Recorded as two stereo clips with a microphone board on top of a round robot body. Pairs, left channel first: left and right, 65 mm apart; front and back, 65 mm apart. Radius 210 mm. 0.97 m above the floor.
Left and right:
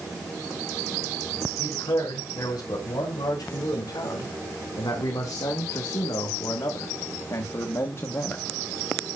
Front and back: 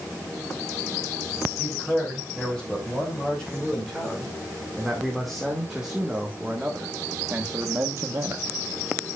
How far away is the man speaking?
About 4 m.